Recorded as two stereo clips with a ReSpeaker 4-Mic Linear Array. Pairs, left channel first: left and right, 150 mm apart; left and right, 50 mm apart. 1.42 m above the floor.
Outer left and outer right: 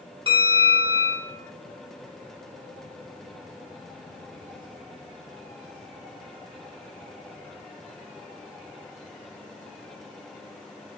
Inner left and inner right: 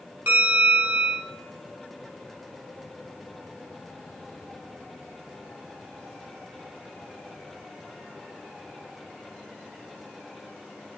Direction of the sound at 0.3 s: 35° right (ahead or behind).